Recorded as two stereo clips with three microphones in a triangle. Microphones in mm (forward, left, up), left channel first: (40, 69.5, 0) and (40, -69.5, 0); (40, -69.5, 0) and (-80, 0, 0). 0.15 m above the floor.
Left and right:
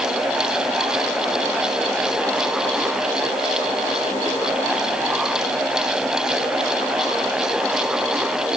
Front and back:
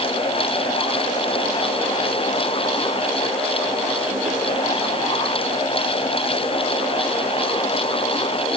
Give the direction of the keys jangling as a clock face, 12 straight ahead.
I don't hear keys jangling.